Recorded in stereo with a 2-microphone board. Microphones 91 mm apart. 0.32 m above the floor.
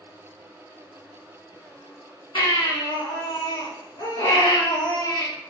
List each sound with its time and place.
2.4 s a baby crying: 65° left (ahead or behind), 1.6 m